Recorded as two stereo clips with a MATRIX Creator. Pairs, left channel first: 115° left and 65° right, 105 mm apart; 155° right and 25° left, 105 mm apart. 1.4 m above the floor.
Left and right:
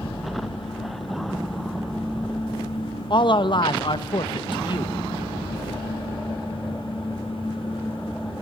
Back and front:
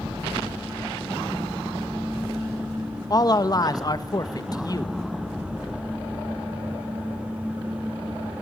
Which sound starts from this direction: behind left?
A man speaking, at 3.1 s.